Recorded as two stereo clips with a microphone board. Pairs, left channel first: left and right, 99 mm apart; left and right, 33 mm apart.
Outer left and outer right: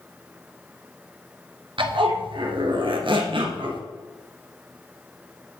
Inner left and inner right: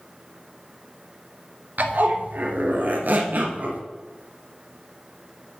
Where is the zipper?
65° right (ahead or behind), 1.5 m.